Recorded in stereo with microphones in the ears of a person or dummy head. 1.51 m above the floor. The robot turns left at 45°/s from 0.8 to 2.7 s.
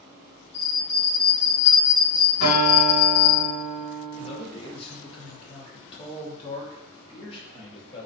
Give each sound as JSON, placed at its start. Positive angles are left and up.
{"t": 0.5, "sound": "a bell", "azimuth_deg": 180, "distance_m": 1.3}
{"t": 2.4, "sound": "a guitar", "side_deg": 50, "distance_m": 1.8}
{"t": 4.2, "sound": "a man speaking", "side_deg": 25, "distance_m": 0.7}